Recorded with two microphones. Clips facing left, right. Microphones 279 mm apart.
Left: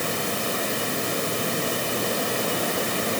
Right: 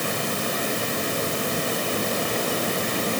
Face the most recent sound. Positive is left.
No sound to turn to.